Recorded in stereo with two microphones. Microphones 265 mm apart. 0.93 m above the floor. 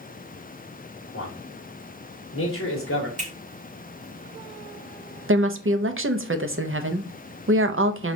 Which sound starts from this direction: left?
A man speaking, at 1.1 s.